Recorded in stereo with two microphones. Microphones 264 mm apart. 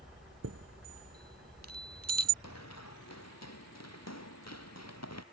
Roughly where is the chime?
Right.